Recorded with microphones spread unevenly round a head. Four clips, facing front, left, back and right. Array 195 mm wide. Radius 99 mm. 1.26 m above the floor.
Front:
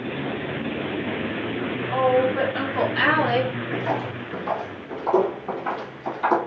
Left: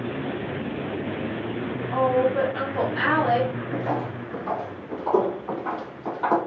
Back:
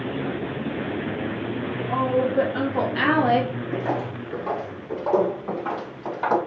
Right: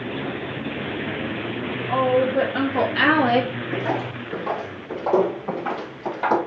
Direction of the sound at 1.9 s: 85° right.